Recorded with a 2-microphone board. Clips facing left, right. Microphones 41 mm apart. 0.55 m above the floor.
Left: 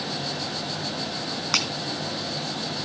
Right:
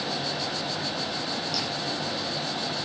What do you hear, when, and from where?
1.5 s breaking glass: 85° left, 2 m